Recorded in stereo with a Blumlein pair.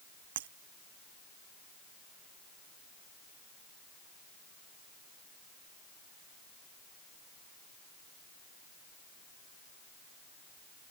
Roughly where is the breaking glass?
Ahead right.